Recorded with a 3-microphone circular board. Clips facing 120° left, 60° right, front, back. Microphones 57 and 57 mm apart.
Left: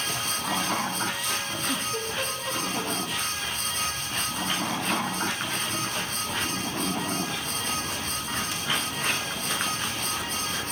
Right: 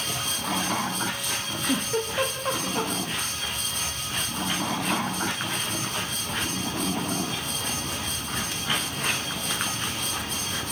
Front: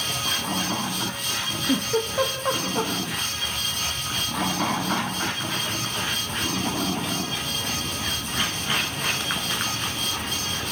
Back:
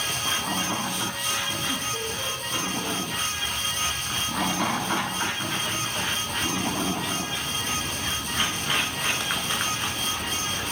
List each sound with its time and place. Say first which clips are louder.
1.7 s a giggle: right 6 dB, front 6 dB; 5° right, 4.5 m